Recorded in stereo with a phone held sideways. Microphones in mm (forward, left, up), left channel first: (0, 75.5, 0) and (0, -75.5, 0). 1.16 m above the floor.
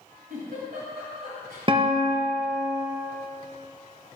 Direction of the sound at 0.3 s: 65° right (ahead or behind).